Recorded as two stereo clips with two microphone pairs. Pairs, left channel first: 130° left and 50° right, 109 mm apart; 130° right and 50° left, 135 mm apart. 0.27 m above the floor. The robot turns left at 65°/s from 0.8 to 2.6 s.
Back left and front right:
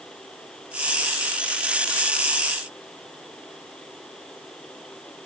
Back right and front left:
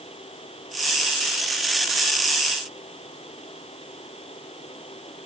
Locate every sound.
Only background noise.